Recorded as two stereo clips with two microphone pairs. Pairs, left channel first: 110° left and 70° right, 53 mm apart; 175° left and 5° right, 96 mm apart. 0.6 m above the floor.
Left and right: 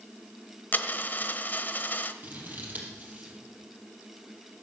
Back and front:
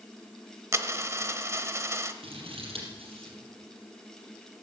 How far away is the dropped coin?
About 1.0 m.